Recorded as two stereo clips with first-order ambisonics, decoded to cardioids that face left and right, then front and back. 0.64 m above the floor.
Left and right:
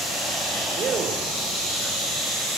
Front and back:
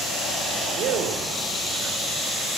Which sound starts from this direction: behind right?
A man speaking, at 0.8 s.